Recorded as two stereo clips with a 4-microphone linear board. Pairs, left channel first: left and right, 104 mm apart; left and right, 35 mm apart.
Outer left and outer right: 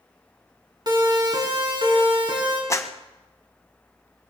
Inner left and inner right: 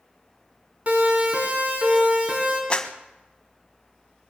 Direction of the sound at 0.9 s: 45° right (ahead or behind).